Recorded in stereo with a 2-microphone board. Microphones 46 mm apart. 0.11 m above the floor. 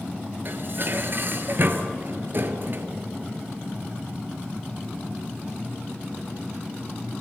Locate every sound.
0.5 s dishes clattering: 50° right (ahead or behind), 1.4 m